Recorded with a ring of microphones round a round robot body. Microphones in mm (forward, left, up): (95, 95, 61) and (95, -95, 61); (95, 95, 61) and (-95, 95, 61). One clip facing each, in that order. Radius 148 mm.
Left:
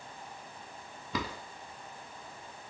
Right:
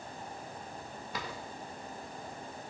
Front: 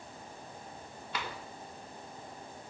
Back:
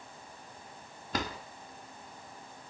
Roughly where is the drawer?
Behind left.